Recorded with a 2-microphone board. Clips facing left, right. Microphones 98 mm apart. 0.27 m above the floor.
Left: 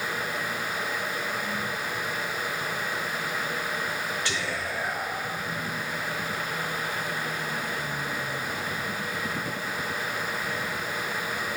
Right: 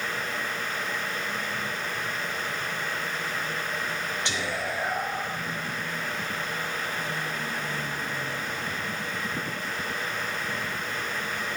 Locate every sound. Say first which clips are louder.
4.2 s whispering: right 1 dB; 20° right (ahead or behind), 0.9 m